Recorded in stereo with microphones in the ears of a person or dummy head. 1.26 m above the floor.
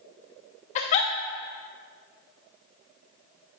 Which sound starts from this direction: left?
A giggle, at 0.8 s.